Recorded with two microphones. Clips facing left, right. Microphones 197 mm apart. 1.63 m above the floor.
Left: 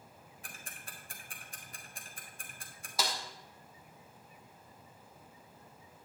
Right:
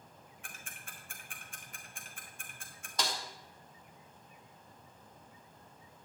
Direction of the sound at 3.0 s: 5° left (ahead or behind).